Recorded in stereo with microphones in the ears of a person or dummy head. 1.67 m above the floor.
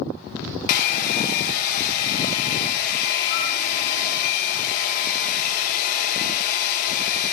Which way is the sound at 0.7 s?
50° left (ahead or behind).